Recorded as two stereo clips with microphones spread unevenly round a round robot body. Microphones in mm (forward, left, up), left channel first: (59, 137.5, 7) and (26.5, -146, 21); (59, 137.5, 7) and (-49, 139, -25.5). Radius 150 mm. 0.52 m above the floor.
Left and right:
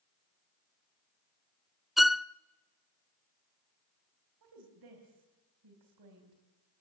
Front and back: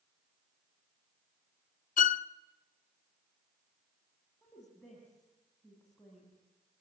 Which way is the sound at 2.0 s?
5° right.